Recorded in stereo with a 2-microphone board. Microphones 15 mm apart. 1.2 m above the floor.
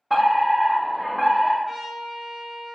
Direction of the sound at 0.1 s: 10° left (ahead or behind).